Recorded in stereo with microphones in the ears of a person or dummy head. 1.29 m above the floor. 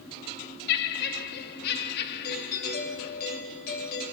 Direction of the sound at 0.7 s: 60° left (ahead or behind).